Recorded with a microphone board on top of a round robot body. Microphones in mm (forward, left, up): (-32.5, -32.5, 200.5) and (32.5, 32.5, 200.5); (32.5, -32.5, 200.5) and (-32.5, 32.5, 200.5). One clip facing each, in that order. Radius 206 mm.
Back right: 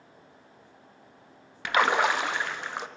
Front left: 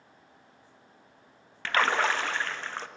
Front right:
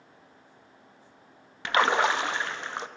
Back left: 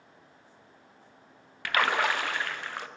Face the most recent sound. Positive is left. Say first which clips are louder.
# back right 2 dB, front right 3 dB
turn(degrees=-75)